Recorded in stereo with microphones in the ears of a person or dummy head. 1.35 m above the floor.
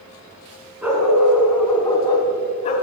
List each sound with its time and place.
0.8 s a dog barking: 5° right (ahead or behind), 3.5 m; by 2.7 s 40° left (ahead or behind), 2 m